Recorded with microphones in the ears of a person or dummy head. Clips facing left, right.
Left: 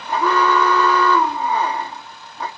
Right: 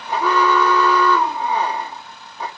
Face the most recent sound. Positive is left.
turn(degrees=-10)  # may be behind; listen again after turning